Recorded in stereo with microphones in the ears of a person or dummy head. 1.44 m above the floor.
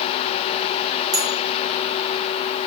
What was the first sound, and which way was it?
A bell, 25° right (ahead or behind).